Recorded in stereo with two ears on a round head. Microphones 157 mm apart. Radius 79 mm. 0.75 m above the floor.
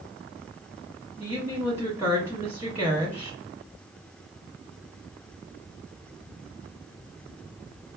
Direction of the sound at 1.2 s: 15° right (ahead or behind).